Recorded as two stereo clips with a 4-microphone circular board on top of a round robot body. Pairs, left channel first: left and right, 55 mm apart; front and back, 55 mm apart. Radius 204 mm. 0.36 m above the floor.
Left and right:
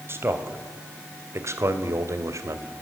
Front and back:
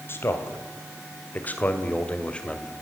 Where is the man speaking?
45° right, 3 m; by 2.7 s 80° right, 2.5 m.